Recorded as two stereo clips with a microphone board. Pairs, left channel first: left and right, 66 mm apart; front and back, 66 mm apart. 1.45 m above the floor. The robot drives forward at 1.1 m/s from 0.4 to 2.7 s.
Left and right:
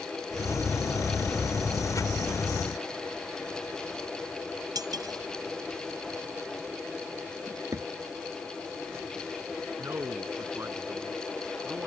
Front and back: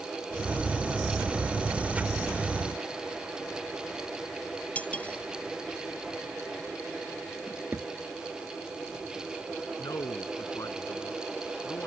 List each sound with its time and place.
4.8 s cutlery clinking: 70° right
7.5 s a drawer: 130° right
9.8 s a man speaking: 40° right